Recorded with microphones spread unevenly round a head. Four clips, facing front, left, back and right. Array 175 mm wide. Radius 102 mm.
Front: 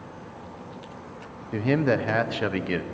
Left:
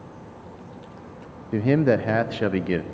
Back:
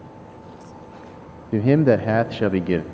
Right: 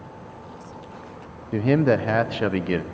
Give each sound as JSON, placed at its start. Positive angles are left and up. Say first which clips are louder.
{"t": 1.5, "sound": "a man speaking", "louder": "even, back 6 dB", "azimuth_deg": -145, "distance_m": 0.7}